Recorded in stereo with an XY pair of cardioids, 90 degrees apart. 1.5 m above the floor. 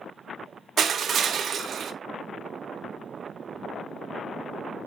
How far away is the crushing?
About 0.8 m.